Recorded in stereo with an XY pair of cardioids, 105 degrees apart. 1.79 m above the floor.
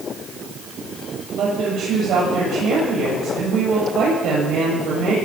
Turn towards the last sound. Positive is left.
turn(degrees=-65)